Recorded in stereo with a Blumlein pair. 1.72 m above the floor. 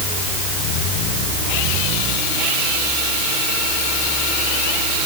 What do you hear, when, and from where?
Only background noise.